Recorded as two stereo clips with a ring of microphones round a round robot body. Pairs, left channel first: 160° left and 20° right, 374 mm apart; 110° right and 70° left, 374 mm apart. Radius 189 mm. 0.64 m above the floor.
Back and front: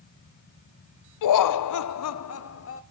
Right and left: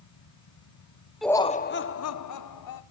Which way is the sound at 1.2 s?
155° left.